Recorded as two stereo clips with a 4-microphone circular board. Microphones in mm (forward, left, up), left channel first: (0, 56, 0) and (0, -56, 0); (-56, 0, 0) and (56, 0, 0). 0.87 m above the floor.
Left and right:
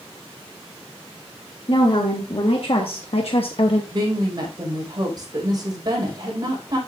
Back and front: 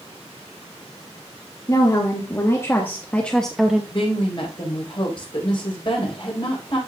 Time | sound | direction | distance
1.7 | a woman speaking | 125° left | 2 m
3.9 | a woman speaking | 140° right | 4.5 m